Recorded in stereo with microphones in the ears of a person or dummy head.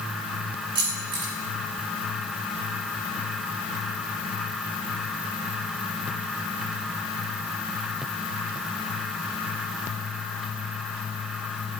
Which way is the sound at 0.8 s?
35° right (ahead or behind).